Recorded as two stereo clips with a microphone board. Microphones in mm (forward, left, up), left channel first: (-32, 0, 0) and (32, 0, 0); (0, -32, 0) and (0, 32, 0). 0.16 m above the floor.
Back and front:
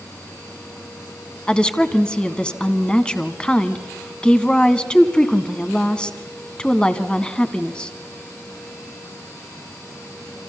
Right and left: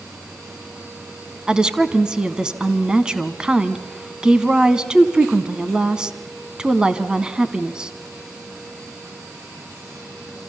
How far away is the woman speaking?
About 1.0 m.